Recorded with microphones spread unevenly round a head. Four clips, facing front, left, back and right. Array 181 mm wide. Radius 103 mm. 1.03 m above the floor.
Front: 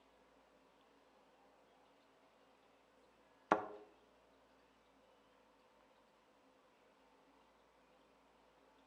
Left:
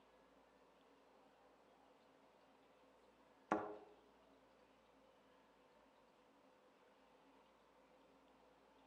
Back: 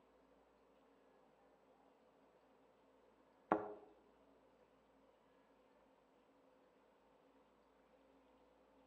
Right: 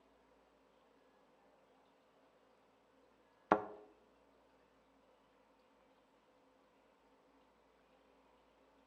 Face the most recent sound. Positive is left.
turn(degrees=-55)